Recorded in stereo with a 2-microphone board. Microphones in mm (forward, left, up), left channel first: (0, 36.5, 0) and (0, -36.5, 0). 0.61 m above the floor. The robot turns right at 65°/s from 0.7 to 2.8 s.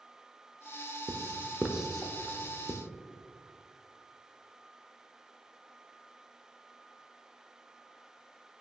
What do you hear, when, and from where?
1.1 s writing: 50° right (ahead or behind), 0.5 m; by 2.8 s 60° left (ahead or behind), 0.5 m